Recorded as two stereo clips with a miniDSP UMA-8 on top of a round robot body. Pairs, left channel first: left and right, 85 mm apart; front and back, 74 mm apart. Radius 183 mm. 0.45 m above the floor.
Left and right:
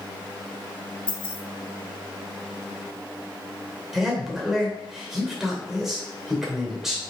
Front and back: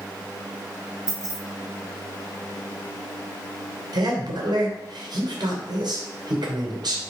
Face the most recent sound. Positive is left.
turn(degrees=-175)